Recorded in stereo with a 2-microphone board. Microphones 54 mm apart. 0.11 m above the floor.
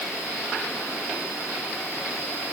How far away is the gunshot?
No gunshot in this recording.